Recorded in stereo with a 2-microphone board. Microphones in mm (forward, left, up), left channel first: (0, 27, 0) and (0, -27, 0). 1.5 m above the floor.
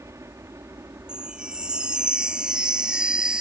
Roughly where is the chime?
Centre.